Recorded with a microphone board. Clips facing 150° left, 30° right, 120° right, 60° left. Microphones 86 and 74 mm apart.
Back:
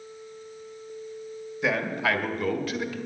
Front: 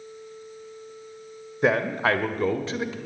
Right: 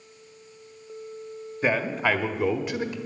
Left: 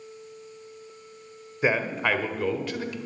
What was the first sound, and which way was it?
A man speaking, 15° right.